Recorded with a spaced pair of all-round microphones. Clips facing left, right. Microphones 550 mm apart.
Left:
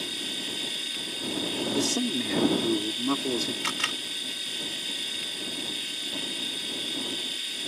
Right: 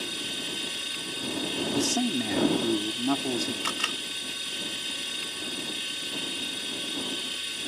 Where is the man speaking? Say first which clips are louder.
Right 1 dB; 10° right (ahead or behind).